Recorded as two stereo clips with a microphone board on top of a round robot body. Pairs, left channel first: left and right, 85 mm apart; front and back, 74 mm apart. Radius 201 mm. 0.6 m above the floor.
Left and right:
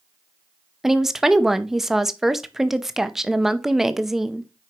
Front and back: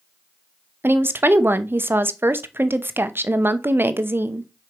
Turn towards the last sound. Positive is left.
turn(degrees=-170)